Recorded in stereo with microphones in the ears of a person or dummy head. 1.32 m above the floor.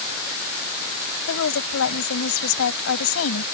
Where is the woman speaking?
75° left (ahead or behind).